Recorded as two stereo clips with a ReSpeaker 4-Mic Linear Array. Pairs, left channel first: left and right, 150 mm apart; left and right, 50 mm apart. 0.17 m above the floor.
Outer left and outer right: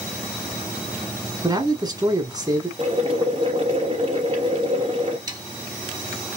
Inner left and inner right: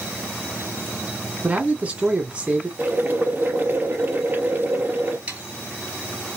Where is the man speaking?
25° right (ahead or behind), 1.5 m.